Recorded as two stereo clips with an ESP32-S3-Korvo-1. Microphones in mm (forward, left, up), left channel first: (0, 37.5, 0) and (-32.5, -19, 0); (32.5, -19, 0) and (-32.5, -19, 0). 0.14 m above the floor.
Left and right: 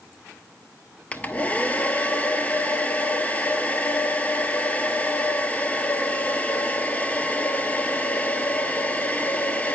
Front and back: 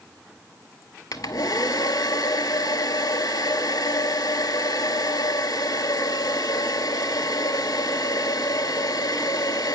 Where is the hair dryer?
5° right, 0.5 m.